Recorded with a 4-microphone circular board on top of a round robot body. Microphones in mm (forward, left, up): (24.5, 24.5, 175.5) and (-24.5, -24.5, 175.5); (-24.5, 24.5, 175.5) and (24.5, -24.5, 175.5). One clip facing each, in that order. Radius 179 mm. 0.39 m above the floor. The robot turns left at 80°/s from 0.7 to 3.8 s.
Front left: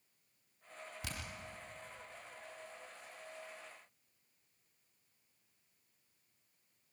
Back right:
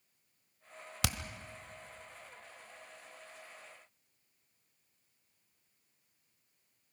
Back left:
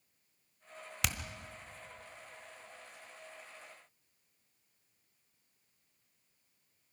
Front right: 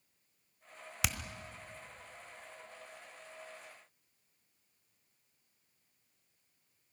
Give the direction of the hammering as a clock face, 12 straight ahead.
4 o'clock.